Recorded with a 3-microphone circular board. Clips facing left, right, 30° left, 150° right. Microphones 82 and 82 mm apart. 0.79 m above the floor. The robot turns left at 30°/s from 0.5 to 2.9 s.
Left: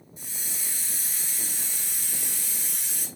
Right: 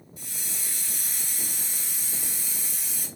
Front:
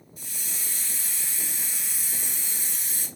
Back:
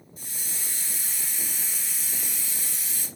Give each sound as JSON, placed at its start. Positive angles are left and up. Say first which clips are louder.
{"t": 0.2, "sound": "a hiss", "louder": "even, even", "azimuth_deg": 160, "distance_m": 1.7}